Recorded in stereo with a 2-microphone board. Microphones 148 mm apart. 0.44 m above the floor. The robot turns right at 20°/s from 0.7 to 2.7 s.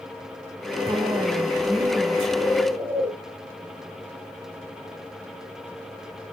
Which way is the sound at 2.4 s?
15° right (ahead or behind).